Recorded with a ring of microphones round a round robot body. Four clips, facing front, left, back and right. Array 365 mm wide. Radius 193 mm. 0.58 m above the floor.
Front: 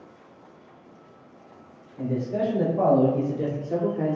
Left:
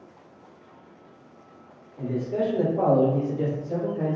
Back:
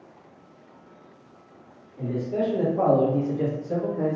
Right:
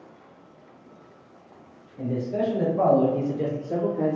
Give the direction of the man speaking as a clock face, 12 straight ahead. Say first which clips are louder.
Even, even; 8 o'clock.